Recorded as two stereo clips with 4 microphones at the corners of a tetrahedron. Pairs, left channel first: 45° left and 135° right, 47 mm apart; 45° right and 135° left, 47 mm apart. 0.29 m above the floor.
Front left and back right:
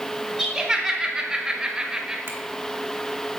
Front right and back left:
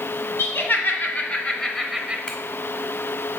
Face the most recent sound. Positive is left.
turn(degrees=-115)